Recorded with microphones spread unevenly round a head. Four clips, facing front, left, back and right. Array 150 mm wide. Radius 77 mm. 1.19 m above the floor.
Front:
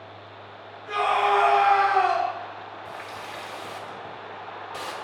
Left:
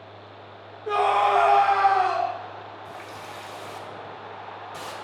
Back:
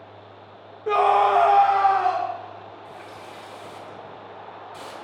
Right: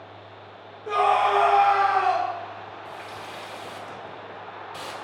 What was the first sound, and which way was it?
A scream, 175° left.